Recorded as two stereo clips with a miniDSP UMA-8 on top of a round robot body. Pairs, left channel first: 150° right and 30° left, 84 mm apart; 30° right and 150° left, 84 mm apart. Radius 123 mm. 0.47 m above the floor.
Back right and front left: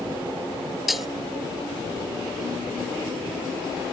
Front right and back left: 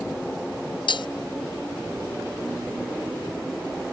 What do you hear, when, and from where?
0.9 s breaking glass: 60° right